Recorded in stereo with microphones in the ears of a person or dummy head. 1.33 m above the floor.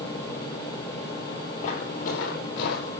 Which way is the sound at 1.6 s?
50° left (ahead or behind).